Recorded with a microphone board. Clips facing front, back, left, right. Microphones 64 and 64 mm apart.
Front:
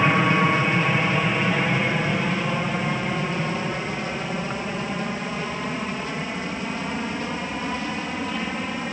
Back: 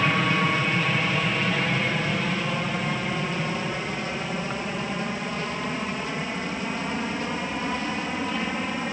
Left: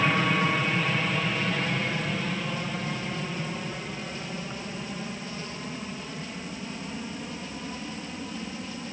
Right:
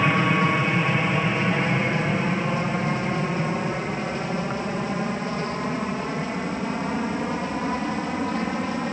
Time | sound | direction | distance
0.0 | an aircraft | 40° right | ?